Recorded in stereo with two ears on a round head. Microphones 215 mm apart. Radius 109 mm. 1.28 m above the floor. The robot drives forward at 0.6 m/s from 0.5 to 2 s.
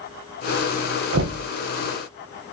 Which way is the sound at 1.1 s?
55° right (ahead or behind).